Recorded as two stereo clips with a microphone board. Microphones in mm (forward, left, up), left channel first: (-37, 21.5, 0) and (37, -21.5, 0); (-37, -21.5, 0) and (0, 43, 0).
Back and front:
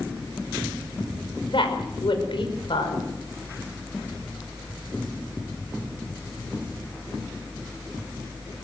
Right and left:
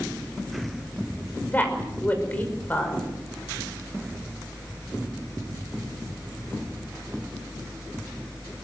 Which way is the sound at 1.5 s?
175° left.